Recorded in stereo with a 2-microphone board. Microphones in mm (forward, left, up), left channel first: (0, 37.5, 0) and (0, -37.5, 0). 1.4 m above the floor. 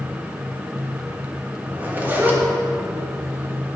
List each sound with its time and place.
1.7 s a zipper: 20° right (ahead or behind), 1.3 m